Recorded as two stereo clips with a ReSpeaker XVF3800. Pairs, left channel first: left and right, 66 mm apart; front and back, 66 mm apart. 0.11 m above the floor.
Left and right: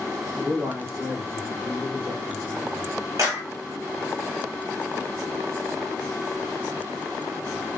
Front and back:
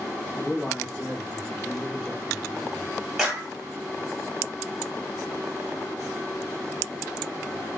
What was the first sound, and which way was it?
A man speaking, 80° right.